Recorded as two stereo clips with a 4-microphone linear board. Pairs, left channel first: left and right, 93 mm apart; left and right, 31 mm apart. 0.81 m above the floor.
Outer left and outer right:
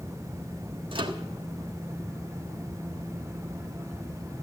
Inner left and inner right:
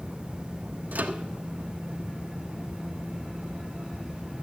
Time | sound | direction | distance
0.9 | a microwave | 65° right (ahead or behind) | 1.3 m